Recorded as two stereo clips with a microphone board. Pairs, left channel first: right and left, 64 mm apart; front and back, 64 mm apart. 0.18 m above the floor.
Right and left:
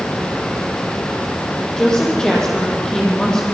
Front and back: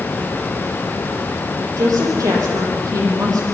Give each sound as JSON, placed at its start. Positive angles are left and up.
{"t": 1.8, "sound": "a woman speaking", "azimuth_deg": -170, "distance_m": 7.0}